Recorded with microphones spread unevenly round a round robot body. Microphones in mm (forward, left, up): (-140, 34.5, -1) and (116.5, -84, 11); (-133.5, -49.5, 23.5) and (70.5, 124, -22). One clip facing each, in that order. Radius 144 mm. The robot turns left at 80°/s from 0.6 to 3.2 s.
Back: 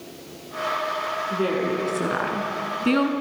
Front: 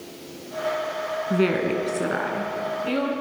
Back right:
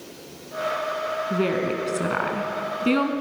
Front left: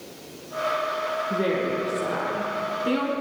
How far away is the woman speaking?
About 3.5 m.